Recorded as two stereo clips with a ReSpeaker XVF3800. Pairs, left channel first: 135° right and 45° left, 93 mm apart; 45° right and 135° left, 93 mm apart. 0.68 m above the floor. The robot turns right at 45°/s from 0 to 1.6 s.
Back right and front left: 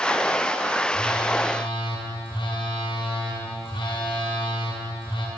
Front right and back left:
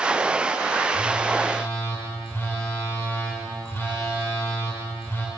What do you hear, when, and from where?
0.9 s a phone buzzing: 140° right, 2 m; by 5.3 s 110° right, 2 m